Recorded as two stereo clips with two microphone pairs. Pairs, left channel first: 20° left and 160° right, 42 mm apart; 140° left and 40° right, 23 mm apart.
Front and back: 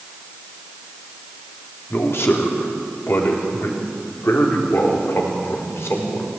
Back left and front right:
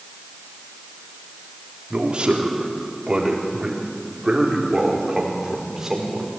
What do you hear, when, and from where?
1.9 s a man speaking: straight ahead, 4 m; by 6.3 s 30° left, 5 m